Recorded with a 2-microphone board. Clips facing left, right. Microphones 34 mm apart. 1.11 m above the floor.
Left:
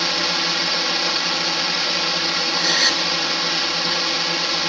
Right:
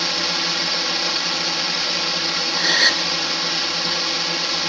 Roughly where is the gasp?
Right.